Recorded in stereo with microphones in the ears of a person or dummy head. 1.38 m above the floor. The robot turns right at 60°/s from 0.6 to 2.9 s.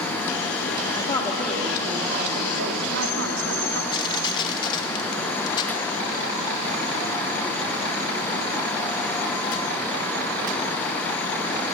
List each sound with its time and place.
0.9 s a woman speaking: 150° left, 3.5 m; by 3.8 s 95° right, 3.5 m
3.9 s crushing: 30° left (ahead or behind), 2.5 m